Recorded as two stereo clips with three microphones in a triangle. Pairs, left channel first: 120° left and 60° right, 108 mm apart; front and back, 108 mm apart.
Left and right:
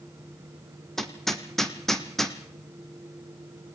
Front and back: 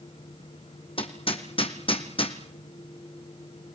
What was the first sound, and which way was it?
Hammering, 30° left.